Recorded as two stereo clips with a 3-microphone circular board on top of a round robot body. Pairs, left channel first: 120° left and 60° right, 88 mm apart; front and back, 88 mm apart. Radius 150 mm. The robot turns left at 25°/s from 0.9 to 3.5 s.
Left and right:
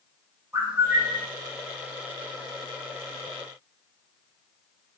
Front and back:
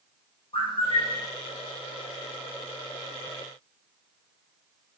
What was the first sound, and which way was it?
A bird, 10° left.